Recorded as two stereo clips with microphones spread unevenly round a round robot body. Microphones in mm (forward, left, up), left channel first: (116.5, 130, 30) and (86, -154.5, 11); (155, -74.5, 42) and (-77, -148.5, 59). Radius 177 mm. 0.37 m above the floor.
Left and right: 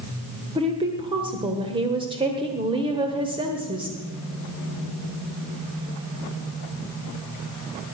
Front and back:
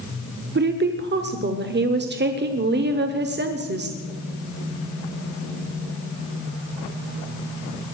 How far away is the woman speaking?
About 1.1 m.